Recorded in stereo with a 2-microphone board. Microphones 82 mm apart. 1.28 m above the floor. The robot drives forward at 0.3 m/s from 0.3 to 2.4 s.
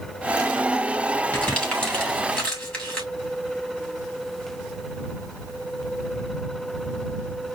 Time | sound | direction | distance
1.3 | crumpling | 20° left (ahead or behind) | 2.0 m